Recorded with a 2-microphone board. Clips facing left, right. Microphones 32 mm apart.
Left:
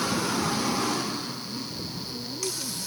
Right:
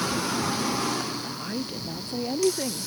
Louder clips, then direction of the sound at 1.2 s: Right 3 dB; 75° right (ahead or behind).